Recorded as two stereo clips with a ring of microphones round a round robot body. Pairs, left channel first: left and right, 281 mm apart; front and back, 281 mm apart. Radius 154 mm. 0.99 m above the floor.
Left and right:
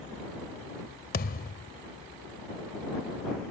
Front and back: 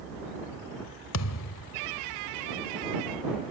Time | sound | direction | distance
1.1 | a thud | 35° left | ?